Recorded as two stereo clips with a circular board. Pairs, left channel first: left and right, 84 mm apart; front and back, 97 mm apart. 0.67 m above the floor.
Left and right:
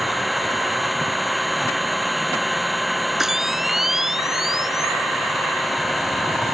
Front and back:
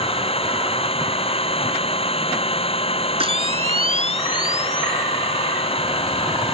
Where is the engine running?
Straight ahead.